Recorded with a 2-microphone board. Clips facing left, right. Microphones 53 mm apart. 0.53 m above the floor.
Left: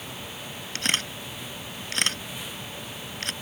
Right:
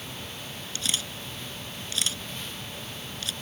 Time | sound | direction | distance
0.8 | a camera shutter | 65° left (ahead or behind) | ?